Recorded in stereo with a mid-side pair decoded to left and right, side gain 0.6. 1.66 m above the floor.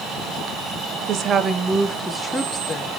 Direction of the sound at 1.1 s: 50° right.